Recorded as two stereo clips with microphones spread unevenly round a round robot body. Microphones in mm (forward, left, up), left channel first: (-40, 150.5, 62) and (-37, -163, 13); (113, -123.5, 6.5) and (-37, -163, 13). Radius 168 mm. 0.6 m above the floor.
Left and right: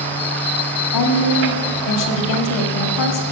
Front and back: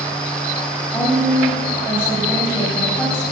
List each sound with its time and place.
0.9 s a woman speaking: 90° left, 1.5 m